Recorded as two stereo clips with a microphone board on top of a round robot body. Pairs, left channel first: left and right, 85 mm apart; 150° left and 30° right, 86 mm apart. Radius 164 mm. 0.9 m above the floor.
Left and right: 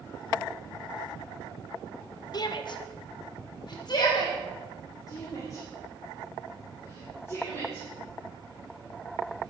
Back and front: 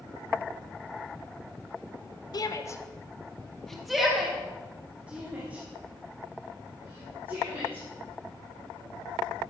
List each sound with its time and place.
2.3 s a shout: 120° left, 1.3 m; by 7.8 s 35° left, 5.5 m